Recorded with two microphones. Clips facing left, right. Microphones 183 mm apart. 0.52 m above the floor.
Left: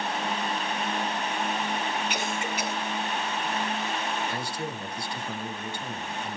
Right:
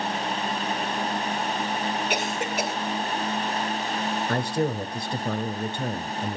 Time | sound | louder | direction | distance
2.1 | a cough | right 4 dB | 60° right (ahead or behind) | 2 m
4.3 | a man speaking | right 8 dB | 65° right (ahead or behind) | 2 m